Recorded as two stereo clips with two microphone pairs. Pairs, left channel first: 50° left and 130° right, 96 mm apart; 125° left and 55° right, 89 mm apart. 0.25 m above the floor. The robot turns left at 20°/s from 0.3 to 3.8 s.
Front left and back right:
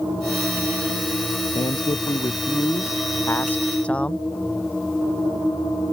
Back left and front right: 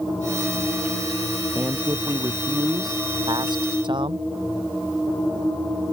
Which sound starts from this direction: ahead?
A man speaking, at 1.6 s.